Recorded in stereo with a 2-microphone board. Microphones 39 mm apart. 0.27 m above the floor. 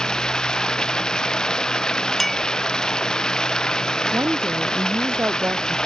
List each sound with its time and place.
0.0 s running water: 20° left (ahead or behind)
2.2 s a clink: 5° left (ahead or behind)
4.1 s a woman speaking: 70° right (ahead or behind)